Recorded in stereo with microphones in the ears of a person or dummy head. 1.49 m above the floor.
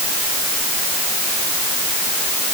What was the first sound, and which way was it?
Only background noise.